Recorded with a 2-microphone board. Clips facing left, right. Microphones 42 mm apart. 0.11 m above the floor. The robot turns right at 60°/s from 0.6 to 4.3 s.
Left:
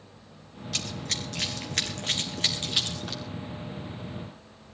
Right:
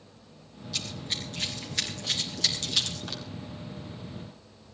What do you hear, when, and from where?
0.7 s running footsteps: 65° left (ahead or behind), 5 m; by 3.2 s 5° right (ahead or behind), 6.5 m